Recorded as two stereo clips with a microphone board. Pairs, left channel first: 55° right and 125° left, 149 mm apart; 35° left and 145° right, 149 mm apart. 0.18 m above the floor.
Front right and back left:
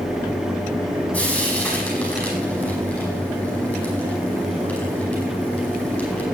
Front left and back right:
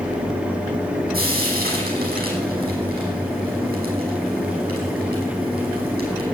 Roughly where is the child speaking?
No child speaking in this recording.